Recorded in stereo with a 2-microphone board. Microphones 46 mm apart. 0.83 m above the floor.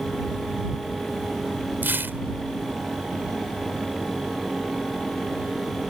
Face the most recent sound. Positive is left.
turn(degrees=-50)  # may be behind; listen again after turning